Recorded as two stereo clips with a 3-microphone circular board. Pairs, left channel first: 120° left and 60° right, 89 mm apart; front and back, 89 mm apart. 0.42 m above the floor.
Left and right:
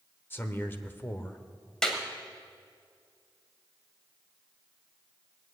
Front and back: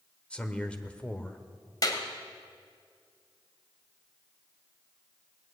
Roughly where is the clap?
Ahead left.